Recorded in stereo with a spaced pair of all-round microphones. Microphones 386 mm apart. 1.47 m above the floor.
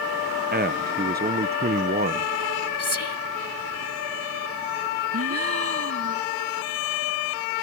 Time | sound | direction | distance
0.5 | a man speaking | 25° right (ahead or behind) | ?
2.8 | whispering | 85° left | ?
5.1 | a gasp | 40° right (ahead or behind) | ?